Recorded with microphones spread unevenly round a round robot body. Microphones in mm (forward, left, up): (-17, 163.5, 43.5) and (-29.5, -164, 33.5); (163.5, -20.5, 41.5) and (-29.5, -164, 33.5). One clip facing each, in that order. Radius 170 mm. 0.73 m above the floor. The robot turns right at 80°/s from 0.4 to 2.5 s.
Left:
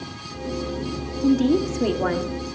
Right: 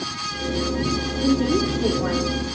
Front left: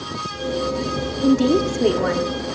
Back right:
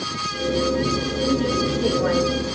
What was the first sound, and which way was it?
A woman speaking, 15° left.